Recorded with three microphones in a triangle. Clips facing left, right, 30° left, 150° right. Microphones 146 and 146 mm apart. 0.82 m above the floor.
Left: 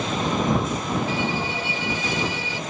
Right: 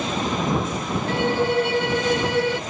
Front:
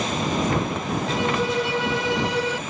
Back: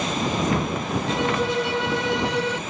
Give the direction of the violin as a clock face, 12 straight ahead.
2 o'clock.